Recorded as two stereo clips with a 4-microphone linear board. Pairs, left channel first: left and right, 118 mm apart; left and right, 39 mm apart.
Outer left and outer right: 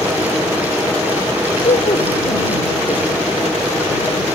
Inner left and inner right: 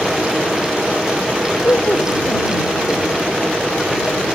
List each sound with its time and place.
1.6 s laughter: 70° left (ahead or behind); by 4.2 s 65° left (ahead or behind)